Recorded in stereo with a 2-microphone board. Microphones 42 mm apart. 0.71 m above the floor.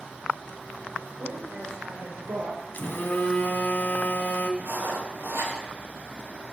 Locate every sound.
1.2 s a woman speaking: 65° right (ahead or behind), 3 m; by 2.6 s 70° right (ahead or behind), 2 m
2.7 s a phone buzzing: 50° left (ahead or behind), 1.5 m
4.6 s writing: 75° right (ahead or behind), 4 m